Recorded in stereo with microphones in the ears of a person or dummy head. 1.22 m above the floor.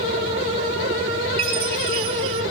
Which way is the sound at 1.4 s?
60° right (ahead or behind).